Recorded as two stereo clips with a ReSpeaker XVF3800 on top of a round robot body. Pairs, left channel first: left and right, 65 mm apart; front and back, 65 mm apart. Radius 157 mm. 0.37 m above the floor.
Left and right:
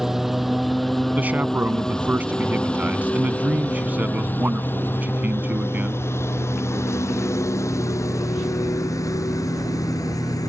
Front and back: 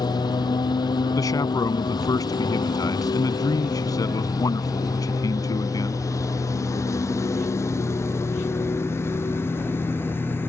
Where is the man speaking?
25° right.